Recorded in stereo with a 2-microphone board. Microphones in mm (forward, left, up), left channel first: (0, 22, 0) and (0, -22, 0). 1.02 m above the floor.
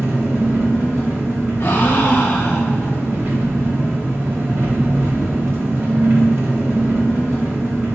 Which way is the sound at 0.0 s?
65° right (ahead or behind).